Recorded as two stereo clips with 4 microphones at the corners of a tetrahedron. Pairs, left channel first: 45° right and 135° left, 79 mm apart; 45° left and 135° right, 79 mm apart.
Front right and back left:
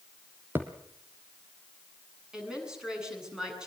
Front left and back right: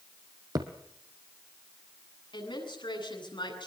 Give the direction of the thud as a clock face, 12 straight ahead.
5 o'clock.